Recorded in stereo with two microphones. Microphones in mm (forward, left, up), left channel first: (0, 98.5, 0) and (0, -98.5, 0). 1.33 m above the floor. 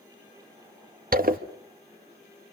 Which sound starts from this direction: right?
A zipper, at 1.1 s.